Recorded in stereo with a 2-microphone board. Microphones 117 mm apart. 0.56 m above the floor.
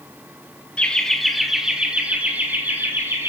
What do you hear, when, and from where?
0.8 s laughter: 10° left (ahead or behind), 1.4 m; by 3.3 s 20° right (ahead or behind), 2.5 m